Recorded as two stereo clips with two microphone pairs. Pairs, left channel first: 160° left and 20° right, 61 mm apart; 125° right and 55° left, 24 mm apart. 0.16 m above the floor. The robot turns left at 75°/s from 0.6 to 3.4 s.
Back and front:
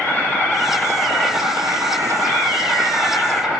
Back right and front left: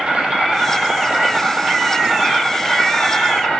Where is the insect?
105° left, 4 m; by 3.6 s 105° right, 4 m.